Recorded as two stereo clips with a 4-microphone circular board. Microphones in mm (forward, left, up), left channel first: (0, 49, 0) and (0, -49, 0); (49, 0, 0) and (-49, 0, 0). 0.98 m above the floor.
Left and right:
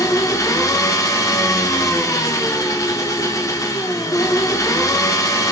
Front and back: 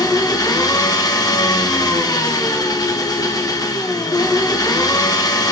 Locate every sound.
0.0 s an engine running: 40° left, 0.8 m